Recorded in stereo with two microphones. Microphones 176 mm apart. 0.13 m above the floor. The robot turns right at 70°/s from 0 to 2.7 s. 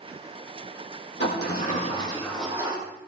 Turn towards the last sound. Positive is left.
turn(degrees=-155)